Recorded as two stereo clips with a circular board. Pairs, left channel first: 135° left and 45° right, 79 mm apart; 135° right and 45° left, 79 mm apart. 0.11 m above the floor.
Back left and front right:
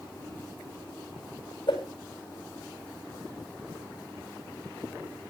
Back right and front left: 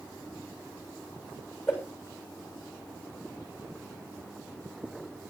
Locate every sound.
1.7 s a whoosh: 165° left, 7.5 m